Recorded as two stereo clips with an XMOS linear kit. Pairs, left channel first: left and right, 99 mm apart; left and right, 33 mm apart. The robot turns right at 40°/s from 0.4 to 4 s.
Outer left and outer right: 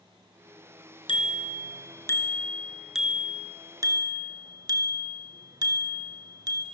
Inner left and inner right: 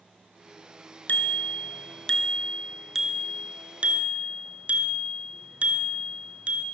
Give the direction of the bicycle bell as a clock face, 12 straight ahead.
8 o'clock.